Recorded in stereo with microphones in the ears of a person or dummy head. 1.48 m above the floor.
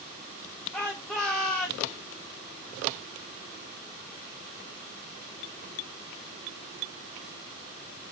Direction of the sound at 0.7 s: 10° left (ahead or behind).